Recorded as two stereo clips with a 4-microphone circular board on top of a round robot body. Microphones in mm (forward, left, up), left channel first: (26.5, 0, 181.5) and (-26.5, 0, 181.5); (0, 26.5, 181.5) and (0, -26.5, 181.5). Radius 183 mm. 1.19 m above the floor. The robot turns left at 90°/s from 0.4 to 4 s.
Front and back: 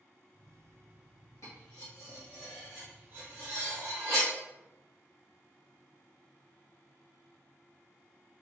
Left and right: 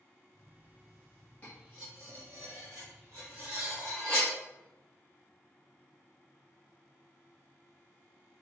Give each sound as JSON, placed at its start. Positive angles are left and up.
{"t": 1.4, "sound": "cutlery clinking", "azimuth_deg": 30, "distance_m": 1.3}